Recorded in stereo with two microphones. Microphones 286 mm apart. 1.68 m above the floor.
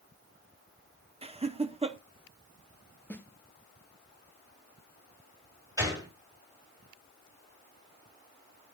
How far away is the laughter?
About 0.6 m.